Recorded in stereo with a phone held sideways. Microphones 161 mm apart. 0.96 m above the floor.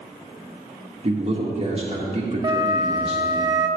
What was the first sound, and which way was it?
A man speaking, 40° right (ahead or behind).